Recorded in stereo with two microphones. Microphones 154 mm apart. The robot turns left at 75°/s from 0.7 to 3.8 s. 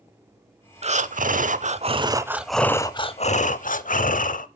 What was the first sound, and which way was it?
Breathing, 55° right.